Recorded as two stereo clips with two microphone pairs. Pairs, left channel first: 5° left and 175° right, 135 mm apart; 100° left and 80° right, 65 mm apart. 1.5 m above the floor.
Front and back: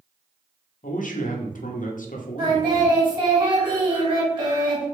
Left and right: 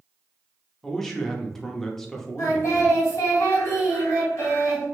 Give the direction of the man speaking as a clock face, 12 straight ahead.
11 o'clock.